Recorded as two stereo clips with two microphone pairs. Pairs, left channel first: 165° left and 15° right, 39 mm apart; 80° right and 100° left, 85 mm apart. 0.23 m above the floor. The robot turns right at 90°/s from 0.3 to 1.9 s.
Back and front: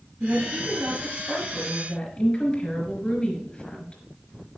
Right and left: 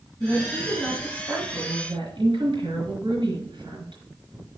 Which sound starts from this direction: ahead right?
A woman speaking, at 0.2 s.